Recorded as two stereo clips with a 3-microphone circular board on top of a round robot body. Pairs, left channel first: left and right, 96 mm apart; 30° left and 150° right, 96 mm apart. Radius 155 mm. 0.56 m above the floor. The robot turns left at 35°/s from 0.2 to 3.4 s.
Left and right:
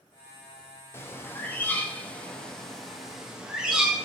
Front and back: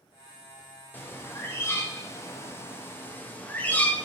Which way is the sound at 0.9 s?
70° left.